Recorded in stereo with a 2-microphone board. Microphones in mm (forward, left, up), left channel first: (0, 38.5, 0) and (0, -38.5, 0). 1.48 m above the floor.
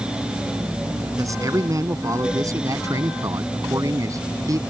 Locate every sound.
1.2 s a man speaking: 45° right (ahead or behind)